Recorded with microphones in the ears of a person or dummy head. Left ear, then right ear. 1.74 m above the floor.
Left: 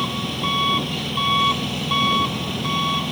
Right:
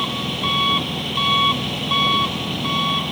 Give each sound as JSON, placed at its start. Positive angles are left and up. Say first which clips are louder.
{"t": 0.0, "sound": "an engine running", "louder": "right 2 dB", "side_deg": -5}